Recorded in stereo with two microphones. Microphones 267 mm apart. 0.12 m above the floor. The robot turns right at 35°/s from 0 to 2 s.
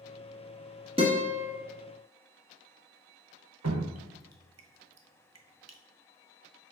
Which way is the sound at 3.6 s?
70° right (ahead or behind).